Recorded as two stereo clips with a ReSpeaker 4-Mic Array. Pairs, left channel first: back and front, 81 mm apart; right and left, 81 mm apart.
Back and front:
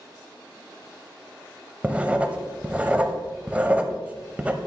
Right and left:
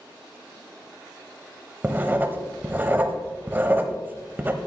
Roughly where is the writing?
Ahead left.